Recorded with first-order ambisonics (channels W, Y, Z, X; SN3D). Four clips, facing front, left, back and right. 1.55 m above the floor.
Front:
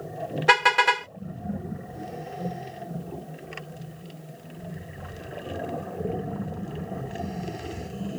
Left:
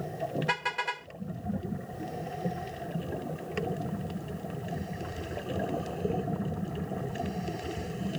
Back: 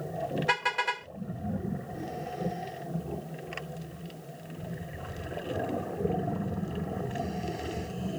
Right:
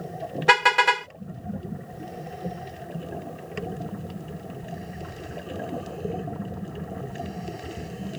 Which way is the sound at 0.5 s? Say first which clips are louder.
Right 17 dB, front 11 dB; 50° right.